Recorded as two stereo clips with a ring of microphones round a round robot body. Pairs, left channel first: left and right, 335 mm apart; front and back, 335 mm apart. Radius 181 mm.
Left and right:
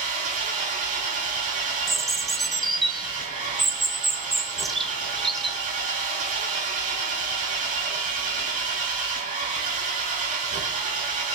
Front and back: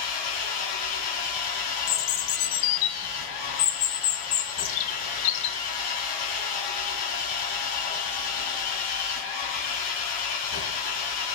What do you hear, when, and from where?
0.0 s an engine running: 25° right, 3 m
1.9 s a bird: straight ahead, 0.8 m